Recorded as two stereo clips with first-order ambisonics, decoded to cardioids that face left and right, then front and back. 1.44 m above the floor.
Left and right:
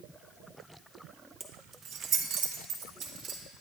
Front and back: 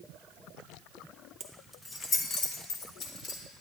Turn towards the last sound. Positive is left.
turn(degrees=-40)